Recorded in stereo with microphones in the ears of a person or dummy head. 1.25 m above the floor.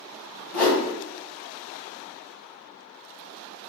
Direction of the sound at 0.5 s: 15° left (ahead or behind).